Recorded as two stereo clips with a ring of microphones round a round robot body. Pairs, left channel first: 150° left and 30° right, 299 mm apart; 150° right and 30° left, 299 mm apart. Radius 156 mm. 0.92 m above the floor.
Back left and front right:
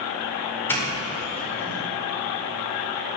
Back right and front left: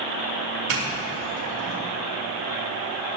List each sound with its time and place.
0.7 s a doorbell: 65° left, 5 m